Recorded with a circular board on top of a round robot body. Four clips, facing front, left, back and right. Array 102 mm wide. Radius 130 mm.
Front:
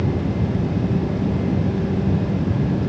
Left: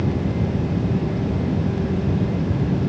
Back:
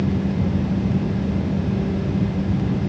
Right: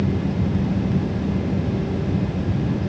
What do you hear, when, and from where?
Only background noise.